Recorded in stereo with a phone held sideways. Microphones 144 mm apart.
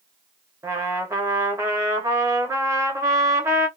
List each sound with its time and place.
0.6 s a trumpet: 20° right (ahead or behind), 0.9 m